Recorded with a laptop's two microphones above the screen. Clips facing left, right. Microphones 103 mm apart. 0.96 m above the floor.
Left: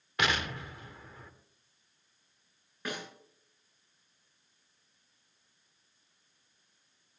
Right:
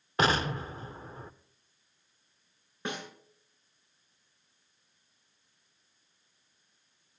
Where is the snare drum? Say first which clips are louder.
Right 2 dB; 25° right (ahead or behind), 7.5 m.